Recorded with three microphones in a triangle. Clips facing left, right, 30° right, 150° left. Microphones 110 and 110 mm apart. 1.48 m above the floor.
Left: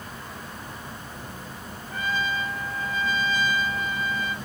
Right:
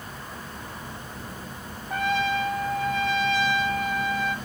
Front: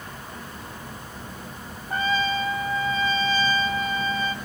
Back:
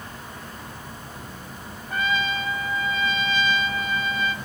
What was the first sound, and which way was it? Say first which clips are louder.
A trumpet: right 4 dB, front 1 dB; 85° right.